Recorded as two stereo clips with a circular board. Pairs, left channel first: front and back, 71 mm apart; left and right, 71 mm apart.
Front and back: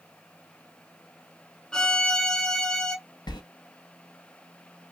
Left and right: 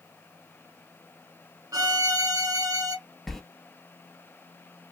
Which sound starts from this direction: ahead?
A sliding door, at 3.3 s.